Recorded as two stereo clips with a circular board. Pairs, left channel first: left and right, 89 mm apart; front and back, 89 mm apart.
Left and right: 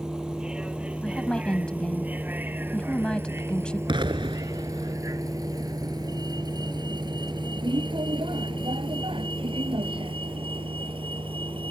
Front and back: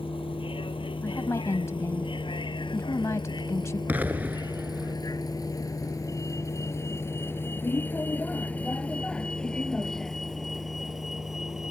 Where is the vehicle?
10° right; by 11.7 s 95° right.